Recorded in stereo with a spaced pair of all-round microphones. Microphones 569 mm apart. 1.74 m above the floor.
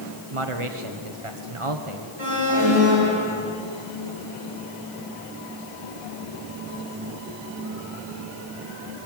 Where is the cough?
No cough in this recording.